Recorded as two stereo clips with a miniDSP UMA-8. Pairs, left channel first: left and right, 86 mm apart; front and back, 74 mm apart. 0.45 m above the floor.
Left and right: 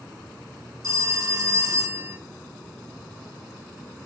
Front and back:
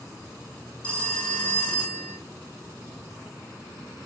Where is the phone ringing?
65° right, 0.6 m.